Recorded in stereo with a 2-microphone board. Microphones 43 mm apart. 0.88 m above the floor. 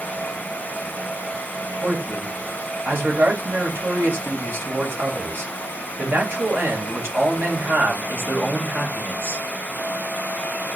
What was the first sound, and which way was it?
A man speaking, 80° right.